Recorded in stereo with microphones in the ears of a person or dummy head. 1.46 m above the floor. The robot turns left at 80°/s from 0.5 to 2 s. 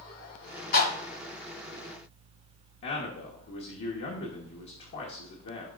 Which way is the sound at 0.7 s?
55° left (ahead or behind).